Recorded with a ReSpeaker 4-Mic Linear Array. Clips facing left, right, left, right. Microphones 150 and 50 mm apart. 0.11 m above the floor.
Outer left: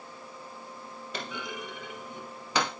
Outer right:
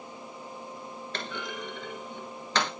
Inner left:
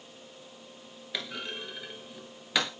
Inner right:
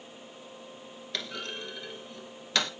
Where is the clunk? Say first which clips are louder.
Even, even; 10° left (ahead or behind), 1.6 m.